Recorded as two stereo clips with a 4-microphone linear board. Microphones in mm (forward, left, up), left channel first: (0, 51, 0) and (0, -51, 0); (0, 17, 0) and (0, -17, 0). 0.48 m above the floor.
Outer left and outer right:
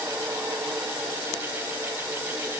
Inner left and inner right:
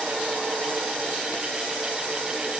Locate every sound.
Only background noise.